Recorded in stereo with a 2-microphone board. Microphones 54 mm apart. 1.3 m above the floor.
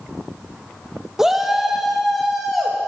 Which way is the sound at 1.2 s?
10° right (ahead or behind).